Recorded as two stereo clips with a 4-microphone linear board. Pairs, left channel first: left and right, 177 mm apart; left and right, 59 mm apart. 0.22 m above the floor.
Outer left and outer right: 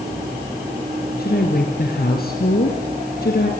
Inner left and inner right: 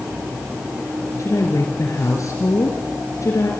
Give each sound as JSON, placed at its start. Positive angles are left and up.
{"t": 1.2, "sound": "a woman speaking", "side_deg": 60, "distance_m": 3.5}